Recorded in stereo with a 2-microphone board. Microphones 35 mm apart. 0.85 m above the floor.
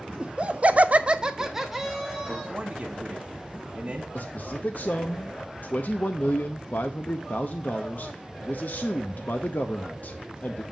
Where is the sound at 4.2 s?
55° left (ahead or behind), 0.5 m.